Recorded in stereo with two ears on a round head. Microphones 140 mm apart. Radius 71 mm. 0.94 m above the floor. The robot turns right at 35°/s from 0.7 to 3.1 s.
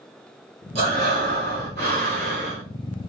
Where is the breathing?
135° right, 2 m; by 2.6 s 70° right, 2 m.